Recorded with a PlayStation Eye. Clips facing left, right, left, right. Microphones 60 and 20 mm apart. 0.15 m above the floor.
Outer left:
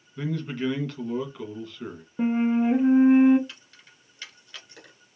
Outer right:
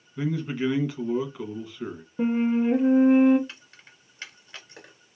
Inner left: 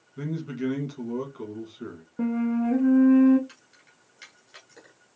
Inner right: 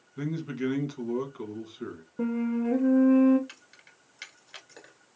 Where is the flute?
5° left (ahead or behind), 0.8 m.